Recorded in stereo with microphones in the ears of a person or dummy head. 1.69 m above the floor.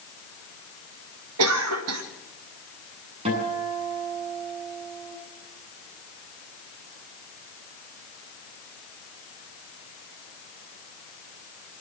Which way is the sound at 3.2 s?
30° right (ahead or behind).